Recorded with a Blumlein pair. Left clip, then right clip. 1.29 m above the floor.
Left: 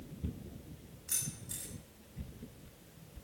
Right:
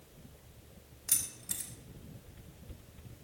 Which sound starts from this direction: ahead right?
Keys jangling, at 1.1 s.